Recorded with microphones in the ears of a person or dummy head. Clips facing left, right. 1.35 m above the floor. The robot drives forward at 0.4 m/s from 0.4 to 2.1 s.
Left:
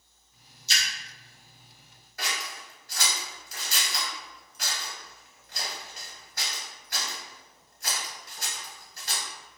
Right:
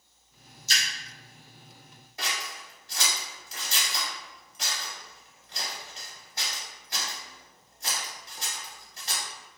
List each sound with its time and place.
0.7 s a splash: 45° right (ahead or behind), 0.7 m
2.2 s scissors: 20° right (ahead or behind), 0.7 m